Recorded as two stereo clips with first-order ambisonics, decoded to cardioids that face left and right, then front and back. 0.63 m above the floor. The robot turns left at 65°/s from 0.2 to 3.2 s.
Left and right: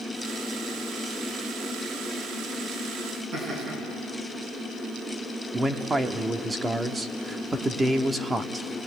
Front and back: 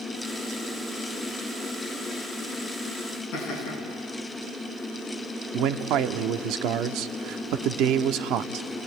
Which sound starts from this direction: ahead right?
Laughter, at 3.3 s.